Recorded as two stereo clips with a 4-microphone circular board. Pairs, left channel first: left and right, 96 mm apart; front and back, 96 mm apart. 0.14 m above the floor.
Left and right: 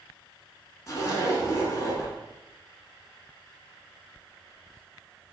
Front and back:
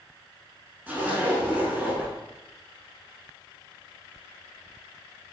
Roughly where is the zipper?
Behind left.